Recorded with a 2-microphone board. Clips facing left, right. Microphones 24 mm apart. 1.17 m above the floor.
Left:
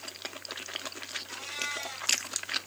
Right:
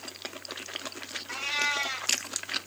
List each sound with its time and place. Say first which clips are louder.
1.3 s a cat meowing: right 9 dB; 45° right (ahead or behind), 1.2 m